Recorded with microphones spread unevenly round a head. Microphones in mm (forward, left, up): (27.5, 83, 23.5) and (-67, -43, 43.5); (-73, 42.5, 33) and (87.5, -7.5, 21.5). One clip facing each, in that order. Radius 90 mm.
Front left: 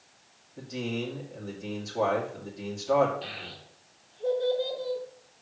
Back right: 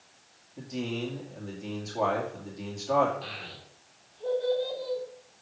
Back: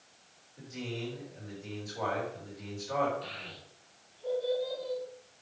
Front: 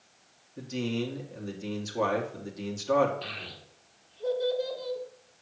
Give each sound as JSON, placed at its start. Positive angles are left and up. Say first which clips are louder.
{"t": 0.6, "sound": "a man speaking", "louder": "even, front 8 dB", "azimuth_deg": -35, "distance_m": 2.0}
{"t": 3.2, "sound": "a child speaking", "louder": "front left 1 dB, front 2 dB", "azimuth_deg": -20, "distance_m": 1.9}